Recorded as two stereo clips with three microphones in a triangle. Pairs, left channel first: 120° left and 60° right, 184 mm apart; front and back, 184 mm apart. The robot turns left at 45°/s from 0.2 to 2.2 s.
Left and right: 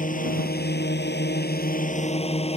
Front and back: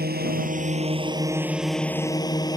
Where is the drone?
155° left; by 2.6 s 65° left.